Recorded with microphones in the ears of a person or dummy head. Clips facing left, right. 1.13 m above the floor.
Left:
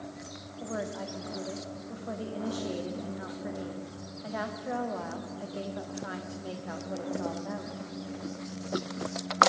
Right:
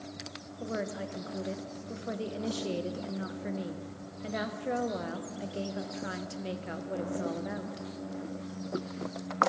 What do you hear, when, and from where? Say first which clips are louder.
0.6 s a woman speaking: even; 30° right (ahead or behind), 0.6 m